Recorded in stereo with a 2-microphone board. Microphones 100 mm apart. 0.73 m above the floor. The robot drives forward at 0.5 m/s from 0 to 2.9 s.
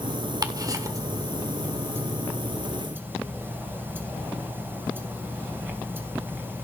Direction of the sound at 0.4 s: 40° right (ahead or behind).